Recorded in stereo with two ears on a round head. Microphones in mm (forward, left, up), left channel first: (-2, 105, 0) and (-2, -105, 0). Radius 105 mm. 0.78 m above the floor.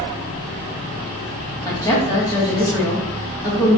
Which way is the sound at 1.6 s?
15° left (ahead or behind).